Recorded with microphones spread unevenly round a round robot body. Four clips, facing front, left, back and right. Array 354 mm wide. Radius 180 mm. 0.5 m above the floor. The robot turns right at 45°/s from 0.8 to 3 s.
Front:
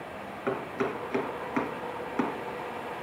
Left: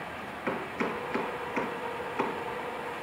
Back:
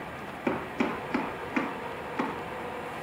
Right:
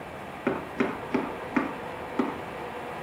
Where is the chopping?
115° right, 2.5 m; by 2.4 s 45° right, 2.5 m.